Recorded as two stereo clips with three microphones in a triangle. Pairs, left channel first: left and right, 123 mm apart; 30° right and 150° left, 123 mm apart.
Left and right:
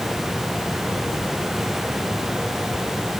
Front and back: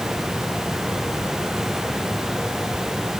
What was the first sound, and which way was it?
Only background noise.